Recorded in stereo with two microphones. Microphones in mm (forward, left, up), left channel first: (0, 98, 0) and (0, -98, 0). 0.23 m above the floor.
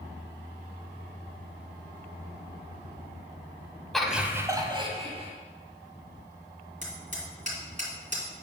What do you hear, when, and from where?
3.9 s laughter: centre (ahead or behind), 1.1 m; by 5.3 s 35° right (ahead or behind), 1.3 m
6.8 s hammering: 40° right (ahead or behind), 2.5 m